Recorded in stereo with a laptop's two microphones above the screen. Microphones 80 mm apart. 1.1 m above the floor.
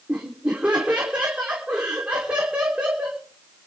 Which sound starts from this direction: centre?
Laughter, at 0.1 s.